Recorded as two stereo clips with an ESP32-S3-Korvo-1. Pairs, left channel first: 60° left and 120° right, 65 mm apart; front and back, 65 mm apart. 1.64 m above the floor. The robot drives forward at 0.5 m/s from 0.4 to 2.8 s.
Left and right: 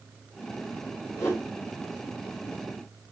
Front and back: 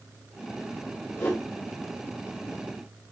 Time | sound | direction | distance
1.2 | a whoosh | 40° left | 1.9 m